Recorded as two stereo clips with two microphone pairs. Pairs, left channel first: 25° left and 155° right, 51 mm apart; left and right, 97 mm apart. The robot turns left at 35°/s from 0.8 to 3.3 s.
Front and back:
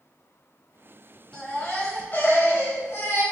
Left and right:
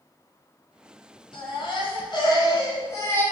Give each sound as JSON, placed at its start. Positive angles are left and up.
{"t": 1.3, "sound": "a baby crying", "azimuth_deg": 90, "distance_m": 1.8}